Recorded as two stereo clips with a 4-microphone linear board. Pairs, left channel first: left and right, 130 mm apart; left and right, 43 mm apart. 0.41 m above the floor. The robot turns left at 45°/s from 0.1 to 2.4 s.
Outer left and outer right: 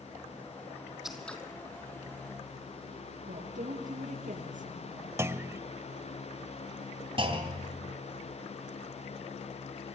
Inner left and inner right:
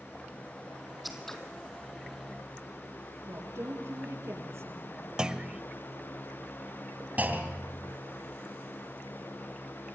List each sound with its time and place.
1.0 s scissors: 5° right (ahead or behind), 2.5 m; by 1.4 s 10° left (ahead or behind), 2.5 m
3.3 s a woman speaking: 80° right, 9 m
5.2 s a clunk: 20° right (ahead or behind), 0.7 m
7.2 s a clunk: 45° right (ahead or behind), 3.5 m